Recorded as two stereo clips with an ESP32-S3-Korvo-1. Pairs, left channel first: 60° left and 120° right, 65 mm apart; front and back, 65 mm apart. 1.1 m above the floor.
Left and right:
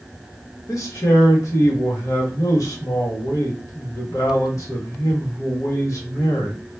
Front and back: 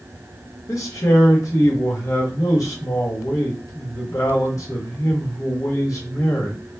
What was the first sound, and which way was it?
A man speaking, 30° left.